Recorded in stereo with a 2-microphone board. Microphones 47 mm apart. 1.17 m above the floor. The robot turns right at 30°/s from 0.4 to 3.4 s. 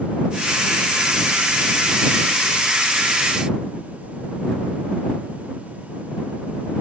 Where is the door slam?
No door slam in this recording.